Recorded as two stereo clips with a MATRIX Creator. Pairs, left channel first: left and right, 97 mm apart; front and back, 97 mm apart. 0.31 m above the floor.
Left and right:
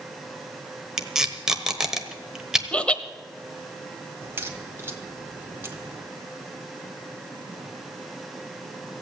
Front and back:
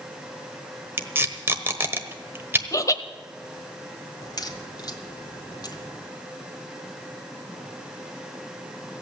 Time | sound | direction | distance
1.0 | tape being pulled | 165° right | 1.2 m
2.7 | laughter | 20° left | 1.2 m
4.2 | a crack | 30° right | 2.0 m